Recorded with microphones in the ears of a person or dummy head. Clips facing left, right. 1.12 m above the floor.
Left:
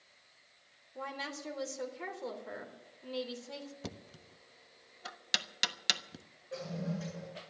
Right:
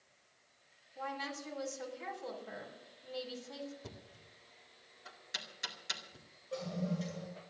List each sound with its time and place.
0.9 s a woman speaking: 75° left (ahead or behind), 3 m
3.8 s knocking: 85° left, 0.9 m
6.5 s a toilet flushing: 20° left (ahead or behind), 9 m